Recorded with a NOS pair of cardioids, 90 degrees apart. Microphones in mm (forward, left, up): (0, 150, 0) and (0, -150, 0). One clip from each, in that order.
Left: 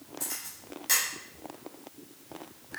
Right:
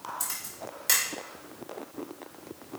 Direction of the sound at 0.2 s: 55° right.